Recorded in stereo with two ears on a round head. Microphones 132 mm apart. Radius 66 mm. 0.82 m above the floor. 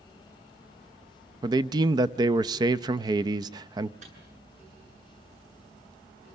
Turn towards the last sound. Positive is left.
turn(degrees=-50)  # may be behind; listen again after turning